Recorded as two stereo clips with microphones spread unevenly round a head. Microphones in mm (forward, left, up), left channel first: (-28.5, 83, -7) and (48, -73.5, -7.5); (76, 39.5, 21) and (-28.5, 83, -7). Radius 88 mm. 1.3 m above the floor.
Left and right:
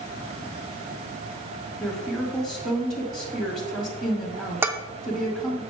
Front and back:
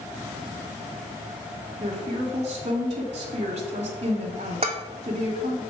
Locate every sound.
1.8 s a woman speaking: 150° right, 1.7 m
4.6 s dishes clattering: 140° right, 0.7 m